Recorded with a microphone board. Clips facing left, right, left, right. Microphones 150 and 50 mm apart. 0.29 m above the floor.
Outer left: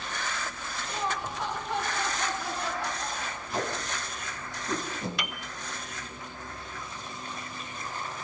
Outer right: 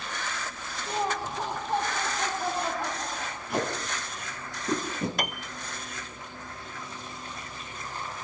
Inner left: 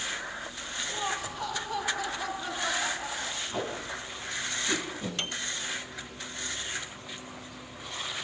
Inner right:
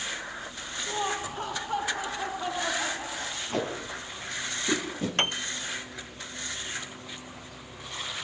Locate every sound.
0.9 s laughter: 40° right (ahead or behind), 8.5 m; by 3.4 s 45° right (ahead or behind), 5.5 m
3.5 s tape being pulled: 65° right (ahead or behind), 7 m
5.2 s a piano: 45° right (ahead or behind), 0.5 m